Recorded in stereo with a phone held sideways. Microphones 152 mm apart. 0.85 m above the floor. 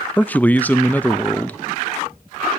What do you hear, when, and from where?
0.2 s a man speaking: 10° left (ahead or behind), 0.5 m